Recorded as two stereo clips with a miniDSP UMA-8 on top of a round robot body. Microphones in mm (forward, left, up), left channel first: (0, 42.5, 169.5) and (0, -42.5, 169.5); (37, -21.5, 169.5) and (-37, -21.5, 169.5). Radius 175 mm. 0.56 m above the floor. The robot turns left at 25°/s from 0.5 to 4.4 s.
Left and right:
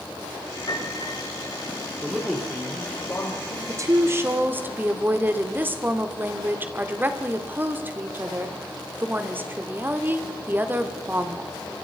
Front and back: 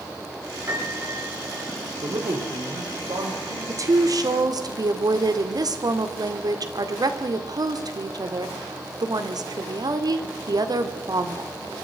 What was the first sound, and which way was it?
A piano, 125° left.